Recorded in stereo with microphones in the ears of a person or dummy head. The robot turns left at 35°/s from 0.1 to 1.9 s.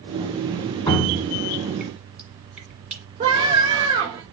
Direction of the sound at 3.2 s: 35° right (ahead or behind).